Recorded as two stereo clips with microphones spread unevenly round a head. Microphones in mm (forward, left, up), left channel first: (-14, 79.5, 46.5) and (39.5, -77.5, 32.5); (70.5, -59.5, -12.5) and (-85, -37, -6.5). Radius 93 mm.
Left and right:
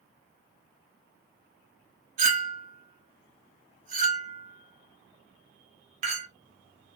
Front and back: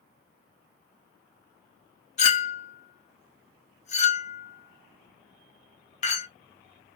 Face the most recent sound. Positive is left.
turn(degrees=-35)